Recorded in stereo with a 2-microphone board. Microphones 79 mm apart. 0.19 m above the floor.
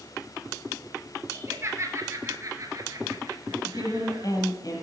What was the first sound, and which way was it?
Laughter, 30° right (ahead or behind).